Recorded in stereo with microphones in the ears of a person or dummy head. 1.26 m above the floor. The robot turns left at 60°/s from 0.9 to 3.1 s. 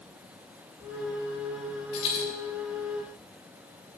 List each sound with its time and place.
1.9 s a dropped coin: 40° left (ahead or behind), 5.5 m; by 2.2 s 20° left (ahead or behind), 5.5 m